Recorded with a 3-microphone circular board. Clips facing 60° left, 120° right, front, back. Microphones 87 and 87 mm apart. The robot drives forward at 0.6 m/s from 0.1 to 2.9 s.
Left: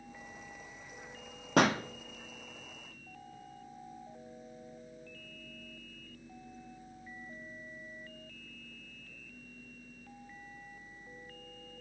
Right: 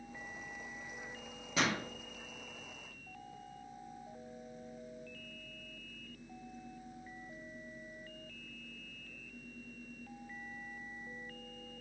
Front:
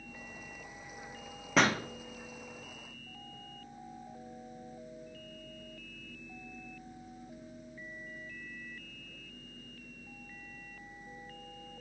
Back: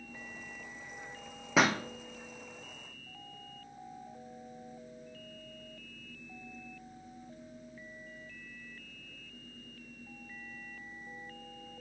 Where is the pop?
95° left, 1.1 m; by 1.8 s 105° left, 1.1 m.